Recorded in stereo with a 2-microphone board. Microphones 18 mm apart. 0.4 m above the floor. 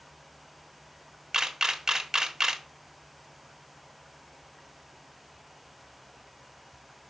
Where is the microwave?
I don't hear a microwave.